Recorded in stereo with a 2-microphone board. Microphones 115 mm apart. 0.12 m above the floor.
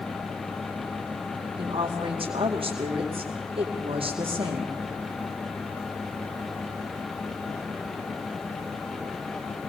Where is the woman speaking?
50° right (ahead or behind), 4.5 m.